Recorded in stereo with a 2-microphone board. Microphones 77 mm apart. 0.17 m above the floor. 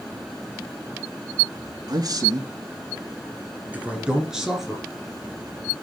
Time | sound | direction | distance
1.9 | a man speaking | 55° right (ahead or behind) | 1.9 m